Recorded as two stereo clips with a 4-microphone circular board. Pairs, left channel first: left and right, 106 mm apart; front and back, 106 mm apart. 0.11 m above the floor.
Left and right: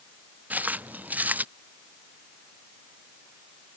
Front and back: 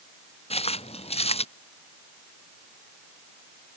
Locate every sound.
0.5 s footsteps: 15° right